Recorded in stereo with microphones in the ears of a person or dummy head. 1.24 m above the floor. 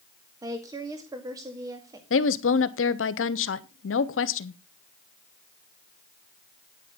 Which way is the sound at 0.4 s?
20° right (ahead or behind).